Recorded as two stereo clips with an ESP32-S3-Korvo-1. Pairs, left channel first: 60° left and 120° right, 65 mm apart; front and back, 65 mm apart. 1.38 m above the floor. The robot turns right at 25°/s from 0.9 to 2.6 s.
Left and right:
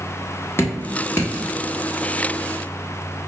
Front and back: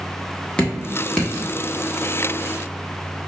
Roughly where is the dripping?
Ahead left.